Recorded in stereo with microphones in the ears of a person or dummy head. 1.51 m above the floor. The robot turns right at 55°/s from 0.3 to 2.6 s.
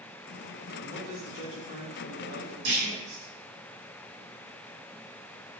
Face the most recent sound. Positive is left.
turn(degrees=-85)